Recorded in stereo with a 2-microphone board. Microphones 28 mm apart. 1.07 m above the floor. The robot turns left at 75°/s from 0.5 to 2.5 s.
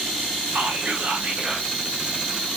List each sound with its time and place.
0.6 s whispering: 80° right, 0.5 m; by 1.7 s 160° right, 0.5 m